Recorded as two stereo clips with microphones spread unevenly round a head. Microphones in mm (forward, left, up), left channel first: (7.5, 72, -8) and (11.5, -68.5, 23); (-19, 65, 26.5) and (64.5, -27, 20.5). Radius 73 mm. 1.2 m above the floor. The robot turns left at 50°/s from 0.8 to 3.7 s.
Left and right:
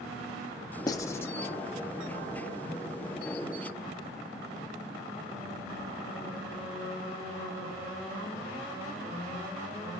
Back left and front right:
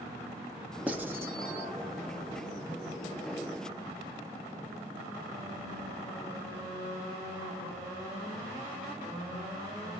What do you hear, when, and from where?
0.9 s writing: 30° left, 0.7 m; by 1.3 s 5° left, 0.7 m